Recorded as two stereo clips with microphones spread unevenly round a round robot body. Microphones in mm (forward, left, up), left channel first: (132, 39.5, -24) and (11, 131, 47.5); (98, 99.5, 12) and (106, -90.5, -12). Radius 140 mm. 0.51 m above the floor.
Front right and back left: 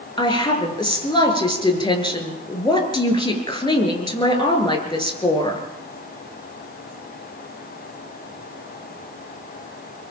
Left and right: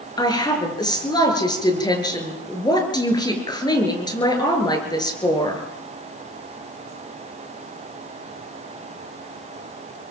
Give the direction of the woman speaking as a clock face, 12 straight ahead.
11 o'clock.